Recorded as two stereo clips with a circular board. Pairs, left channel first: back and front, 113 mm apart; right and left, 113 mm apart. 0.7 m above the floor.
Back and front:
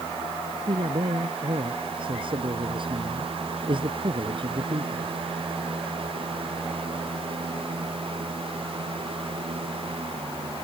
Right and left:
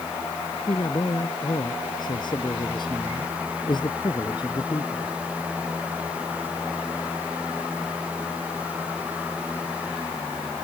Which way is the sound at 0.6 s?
40° right.